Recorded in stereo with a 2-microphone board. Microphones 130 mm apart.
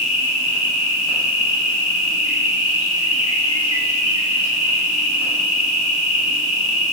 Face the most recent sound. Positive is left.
turn(degrees=50)  # may be behind; listen again after turning